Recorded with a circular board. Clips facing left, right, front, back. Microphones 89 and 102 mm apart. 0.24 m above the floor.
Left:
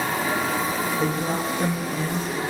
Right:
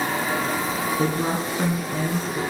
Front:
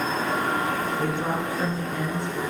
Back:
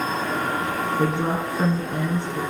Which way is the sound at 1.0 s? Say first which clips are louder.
Right 1 dB, back 3 dB; 125° right.